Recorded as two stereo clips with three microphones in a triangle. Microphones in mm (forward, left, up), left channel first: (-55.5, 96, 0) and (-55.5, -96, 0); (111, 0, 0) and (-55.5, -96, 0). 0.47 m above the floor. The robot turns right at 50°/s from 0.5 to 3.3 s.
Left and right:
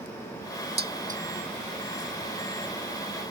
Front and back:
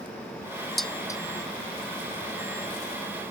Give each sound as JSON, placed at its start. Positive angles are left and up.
{"t": 0.8, "sound": "dishes clattering", "azimuth_deg": -60}